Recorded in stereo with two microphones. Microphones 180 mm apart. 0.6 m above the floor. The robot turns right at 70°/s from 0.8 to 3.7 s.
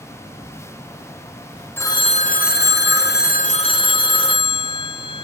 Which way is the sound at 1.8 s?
15° left.